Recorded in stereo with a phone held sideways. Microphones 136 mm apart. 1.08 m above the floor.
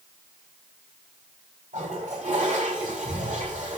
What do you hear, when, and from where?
1.7 s a toilet flushing: 70° right (ahead or behind), 3.5 m